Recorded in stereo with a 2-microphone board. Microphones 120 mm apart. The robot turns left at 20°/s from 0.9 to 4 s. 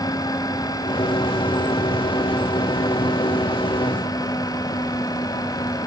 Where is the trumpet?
No trumpet in this recording.